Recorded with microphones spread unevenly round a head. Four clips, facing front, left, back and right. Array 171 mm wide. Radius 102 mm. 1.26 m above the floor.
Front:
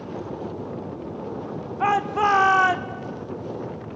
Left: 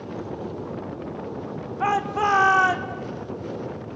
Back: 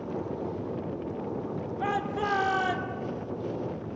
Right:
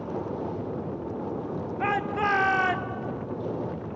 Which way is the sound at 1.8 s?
Straight ahead.